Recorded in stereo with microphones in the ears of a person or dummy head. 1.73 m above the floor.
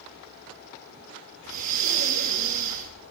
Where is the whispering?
No whispering in this recording.